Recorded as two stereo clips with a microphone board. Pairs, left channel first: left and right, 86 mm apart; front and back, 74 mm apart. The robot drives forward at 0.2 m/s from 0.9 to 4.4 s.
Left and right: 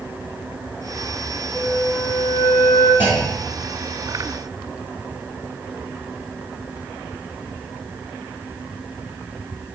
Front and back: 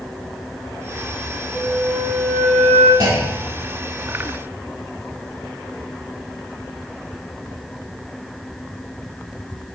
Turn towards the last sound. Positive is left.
turn(degrees=-160)